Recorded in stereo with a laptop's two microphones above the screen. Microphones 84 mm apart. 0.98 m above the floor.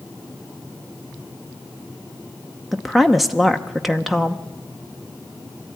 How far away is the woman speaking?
About 0.7 m.